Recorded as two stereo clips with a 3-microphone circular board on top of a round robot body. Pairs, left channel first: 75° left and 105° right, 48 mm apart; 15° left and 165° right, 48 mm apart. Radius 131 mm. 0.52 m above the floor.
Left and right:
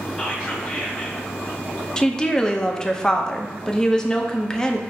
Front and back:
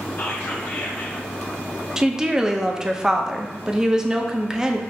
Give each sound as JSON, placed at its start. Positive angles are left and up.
{"t": 0.2, "sound": "whispering", "azimuth_deg": -15, "distance_m": 1.7}
{"t": 2.0, "sound": "a woman speaking", "azimuth_deg": 135, "distance_m": 0.7}